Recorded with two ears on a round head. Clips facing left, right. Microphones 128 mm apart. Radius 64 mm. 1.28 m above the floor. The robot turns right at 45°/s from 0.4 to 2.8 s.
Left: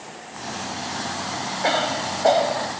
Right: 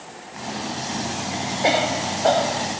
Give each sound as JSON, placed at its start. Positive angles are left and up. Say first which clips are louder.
{"t": 1.6, "sound": "a cough", "louder": "right 2 dB", "azimuth_deg": -20}